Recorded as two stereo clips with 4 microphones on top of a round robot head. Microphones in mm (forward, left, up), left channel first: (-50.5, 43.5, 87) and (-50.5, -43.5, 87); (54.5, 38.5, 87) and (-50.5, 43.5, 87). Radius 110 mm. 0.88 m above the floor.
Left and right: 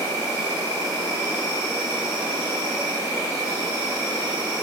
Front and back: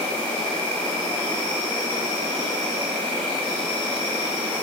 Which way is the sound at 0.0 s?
70° left.